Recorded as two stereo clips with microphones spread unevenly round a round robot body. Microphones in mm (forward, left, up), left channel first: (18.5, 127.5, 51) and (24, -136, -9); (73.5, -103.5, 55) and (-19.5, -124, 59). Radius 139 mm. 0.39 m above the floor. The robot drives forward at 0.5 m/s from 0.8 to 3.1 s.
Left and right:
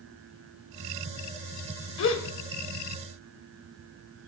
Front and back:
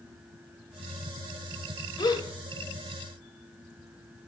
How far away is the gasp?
About 1.7 m.